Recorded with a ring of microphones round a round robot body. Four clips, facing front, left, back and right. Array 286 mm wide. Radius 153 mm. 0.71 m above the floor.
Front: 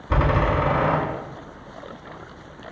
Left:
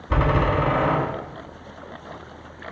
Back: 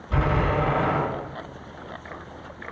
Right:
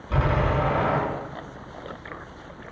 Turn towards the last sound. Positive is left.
turn(degrees=35)